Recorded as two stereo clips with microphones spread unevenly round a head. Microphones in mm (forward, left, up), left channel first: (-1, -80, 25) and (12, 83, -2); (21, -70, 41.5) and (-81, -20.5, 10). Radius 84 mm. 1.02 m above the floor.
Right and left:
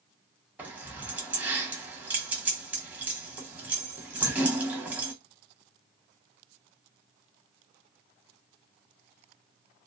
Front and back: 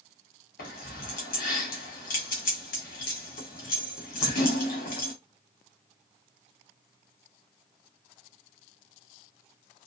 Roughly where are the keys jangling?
Ahead.